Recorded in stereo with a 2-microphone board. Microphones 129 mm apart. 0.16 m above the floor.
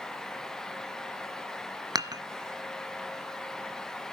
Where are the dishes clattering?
30° right (ahead or behind), 0.7 m.